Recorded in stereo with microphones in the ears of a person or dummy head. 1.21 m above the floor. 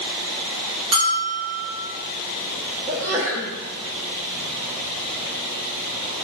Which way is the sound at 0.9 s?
30° right (ahead or behind).